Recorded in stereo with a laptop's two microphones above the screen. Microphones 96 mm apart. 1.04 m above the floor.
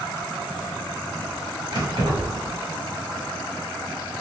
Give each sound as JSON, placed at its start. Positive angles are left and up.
{"t": 1.7, "sound": "keys jangling", "side_deg": -65, "distance_m": 1.5}